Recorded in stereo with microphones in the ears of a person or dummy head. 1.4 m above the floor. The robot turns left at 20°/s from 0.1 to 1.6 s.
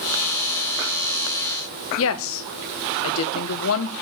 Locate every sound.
2.0 s a woman speaking: 75° left (ahead or behind), 1.3 m